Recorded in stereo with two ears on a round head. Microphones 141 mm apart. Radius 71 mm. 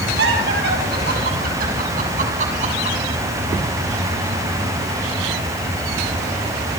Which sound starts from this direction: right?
Laughter, at 0.2 s.